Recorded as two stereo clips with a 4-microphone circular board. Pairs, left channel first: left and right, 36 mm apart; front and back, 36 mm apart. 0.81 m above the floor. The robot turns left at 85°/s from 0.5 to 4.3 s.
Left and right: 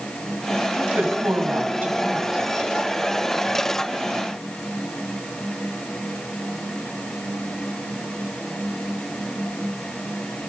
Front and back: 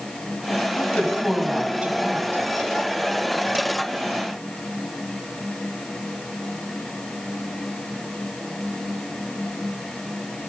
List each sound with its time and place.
0.8 s a woman speaking: 35° right, 5.5 m; by 2.4 s straight behind, 5.5 m